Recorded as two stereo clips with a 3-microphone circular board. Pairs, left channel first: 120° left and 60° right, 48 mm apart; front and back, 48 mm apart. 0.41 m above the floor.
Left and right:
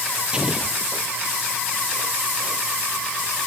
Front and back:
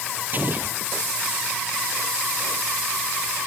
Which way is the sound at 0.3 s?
130° right.